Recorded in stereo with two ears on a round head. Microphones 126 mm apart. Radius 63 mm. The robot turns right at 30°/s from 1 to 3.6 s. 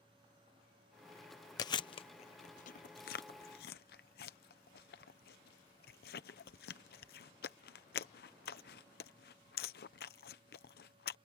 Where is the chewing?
25° left (ahead or behind); by 11.2 s 80° left.